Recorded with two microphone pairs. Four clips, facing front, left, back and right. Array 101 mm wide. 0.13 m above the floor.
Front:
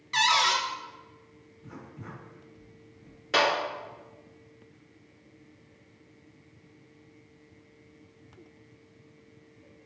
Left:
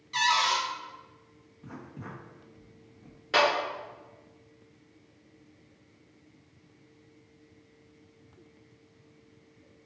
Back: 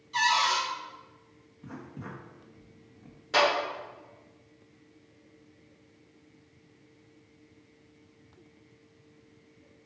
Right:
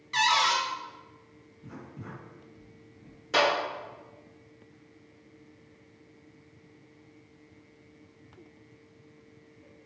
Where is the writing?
130° left, 1.6 m.